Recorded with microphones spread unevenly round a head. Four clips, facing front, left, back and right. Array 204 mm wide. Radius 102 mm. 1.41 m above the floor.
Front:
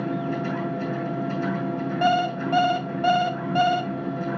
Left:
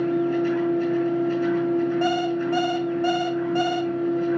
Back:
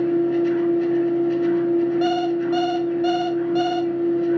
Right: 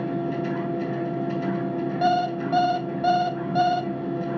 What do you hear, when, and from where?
0.0 s a machine running: 35° right, 4.5 m
2.0 s an alarm clock: 25° right, 1.0 m